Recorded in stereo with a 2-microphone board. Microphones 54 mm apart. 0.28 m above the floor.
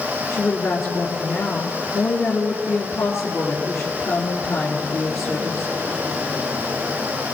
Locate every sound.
0.3 s a woman speaking: 55° left (ahead or behind), 3 m